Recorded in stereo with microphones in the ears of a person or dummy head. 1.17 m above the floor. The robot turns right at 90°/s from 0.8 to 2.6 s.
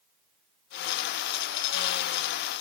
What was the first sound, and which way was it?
Only background noise.